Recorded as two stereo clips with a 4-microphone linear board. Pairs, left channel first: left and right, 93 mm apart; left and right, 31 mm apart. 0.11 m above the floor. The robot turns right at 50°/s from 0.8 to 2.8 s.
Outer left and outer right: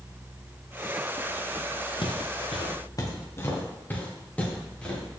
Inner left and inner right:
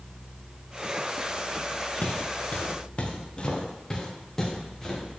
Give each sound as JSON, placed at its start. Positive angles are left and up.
{"t": 2.0, "sound": "footsteps", "side_deg": 60, "distance_m": 1.4}